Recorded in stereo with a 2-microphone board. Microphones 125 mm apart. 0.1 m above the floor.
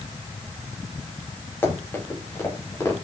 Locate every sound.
1.6 s running footsteps: 15° left (ahead or behind), 7 m; by 3.0 s 25° left (ahead or behind), 6.5 m